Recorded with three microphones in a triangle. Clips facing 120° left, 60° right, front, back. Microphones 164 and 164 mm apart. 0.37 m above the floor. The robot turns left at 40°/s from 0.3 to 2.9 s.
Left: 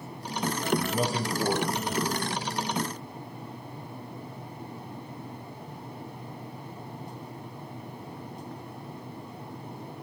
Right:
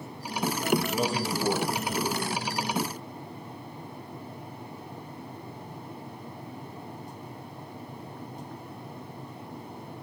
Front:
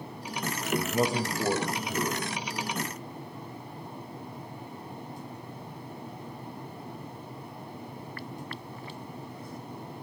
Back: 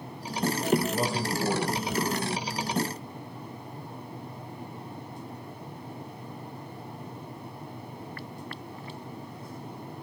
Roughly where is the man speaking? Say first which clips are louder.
Right 1 dB, front 3 dB; left.